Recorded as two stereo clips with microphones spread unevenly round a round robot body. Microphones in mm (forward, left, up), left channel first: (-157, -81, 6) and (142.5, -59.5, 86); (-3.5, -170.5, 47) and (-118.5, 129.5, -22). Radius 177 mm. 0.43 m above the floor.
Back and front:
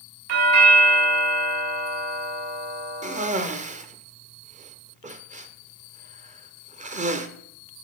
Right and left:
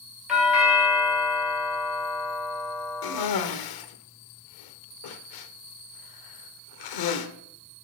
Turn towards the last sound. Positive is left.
turn(degrees=-70)